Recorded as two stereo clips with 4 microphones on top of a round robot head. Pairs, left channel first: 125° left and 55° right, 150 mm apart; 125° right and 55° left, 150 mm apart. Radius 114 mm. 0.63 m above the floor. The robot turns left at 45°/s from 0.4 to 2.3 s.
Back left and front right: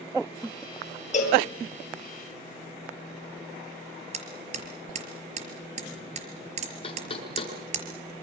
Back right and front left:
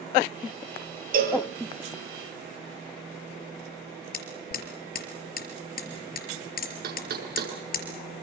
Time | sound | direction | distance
1.1 | a cowbell | 85° left | 6 m
4.1 | hammering | 100° right | 4.5 m
6.8 | knocking | 70° left | 7 m